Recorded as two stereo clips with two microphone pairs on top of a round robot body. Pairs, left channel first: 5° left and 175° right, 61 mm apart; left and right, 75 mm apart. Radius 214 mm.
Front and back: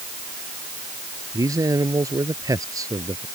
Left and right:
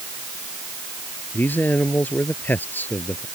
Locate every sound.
1.3 s a man speaking: 160° left